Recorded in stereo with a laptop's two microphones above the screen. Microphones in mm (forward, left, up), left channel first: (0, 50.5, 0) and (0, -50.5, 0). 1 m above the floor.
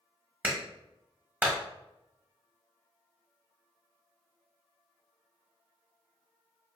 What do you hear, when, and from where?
0.4 s a clap: 20° right (ahead or behind), 1.2 m